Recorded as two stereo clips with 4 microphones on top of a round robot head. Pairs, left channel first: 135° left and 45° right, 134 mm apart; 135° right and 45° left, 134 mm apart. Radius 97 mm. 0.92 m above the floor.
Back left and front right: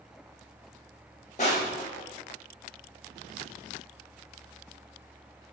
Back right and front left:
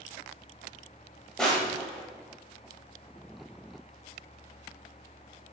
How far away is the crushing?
About 0.8 m.